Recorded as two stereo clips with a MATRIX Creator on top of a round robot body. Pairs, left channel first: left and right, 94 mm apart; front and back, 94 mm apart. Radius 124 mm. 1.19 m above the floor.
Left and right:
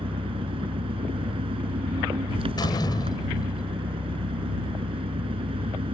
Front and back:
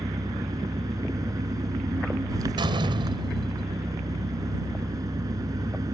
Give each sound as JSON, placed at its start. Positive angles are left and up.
{"t": 0.0, "sound": "an engine running", "azimuth_deg": -125}
{"t": 2.6, "sound": "a door slam", "azimuth_deg": 140}